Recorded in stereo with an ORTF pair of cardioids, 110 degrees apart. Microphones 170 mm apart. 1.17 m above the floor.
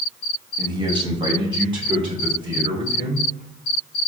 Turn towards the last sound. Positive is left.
turn(degrees=-30)